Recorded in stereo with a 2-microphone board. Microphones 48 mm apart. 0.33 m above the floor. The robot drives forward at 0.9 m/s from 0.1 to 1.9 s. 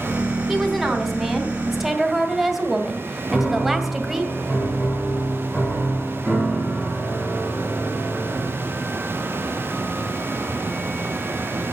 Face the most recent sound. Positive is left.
turn(degrees=10)  # may be behind; listen again after turning